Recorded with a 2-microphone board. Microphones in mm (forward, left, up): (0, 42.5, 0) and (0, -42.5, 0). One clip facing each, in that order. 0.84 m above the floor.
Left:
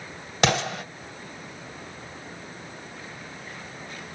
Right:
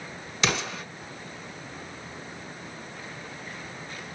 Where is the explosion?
60° left (ahead or behind), 2 m.